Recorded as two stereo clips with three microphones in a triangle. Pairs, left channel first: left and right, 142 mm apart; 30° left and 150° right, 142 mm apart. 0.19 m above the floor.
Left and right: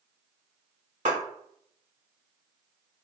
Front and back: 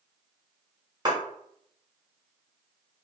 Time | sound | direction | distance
1.1 | a clap | 95° right | 1.8 m